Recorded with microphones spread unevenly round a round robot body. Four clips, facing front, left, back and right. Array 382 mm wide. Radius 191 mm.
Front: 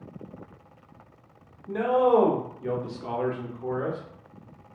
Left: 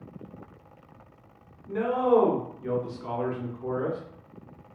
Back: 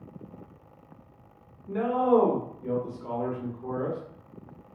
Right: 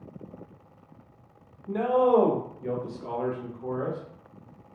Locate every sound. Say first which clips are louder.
1.7 s a man speaking: right 1 dB, front 2 dB; 75° right, 1.1 m; by 4.0 s 65° left, 1.1 m